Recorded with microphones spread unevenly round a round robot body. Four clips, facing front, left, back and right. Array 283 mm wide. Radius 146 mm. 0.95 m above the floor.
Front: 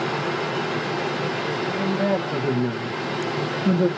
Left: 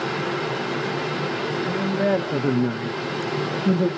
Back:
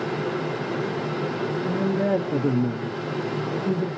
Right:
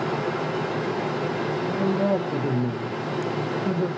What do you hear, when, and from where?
1.6 s a man speaking: straight behind, 0.9 m; by 3.9 s 35° left, 0.9 m